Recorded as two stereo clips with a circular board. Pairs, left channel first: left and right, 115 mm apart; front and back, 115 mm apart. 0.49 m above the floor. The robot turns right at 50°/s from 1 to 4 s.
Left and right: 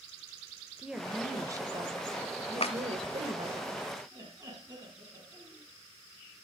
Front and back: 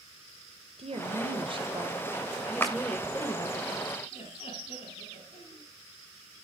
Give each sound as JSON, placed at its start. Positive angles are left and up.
{"t": 0.8, "sound": "a woman speaking", "azimuth_deg": -175, "distance_m": 1.8}
{"t": 2.6, "sound": "a clap", "azimuth_deg": 70, "distance_m": 1.9}
{"t": 4.1, "sound": "laughter", "azimuth_deg": -30, "distance_m": 5.0}